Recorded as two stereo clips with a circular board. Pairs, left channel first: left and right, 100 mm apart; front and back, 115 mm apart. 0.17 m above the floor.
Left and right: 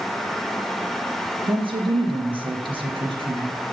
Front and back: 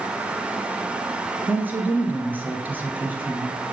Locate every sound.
1.4 s a woman speaking: 105° right, 2.5 m